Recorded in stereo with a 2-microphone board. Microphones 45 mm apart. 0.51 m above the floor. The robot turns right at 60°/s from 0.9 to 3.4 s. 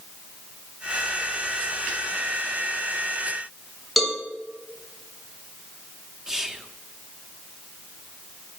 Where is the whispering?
15° right (ahead or behind), 0.9 m.